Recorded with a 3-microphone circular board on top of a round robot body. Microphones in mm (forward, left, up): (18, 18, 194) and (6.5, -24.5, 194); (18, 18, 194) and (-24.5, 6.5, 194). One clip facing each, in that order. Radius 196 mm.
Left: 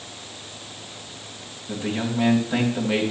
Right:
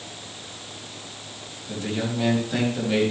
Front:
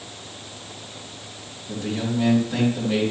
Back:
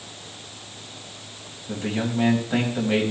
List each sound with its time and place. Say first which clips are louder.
1.7 s a man speaking: left 1 dB, even; 145° left, 5 m